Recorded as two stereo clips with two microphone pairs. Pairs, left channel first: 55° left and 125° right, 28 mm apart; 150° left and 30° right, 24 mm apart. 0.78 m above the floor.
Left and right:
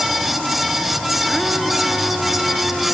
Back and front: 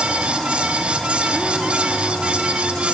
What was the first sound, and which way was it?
Only background noise.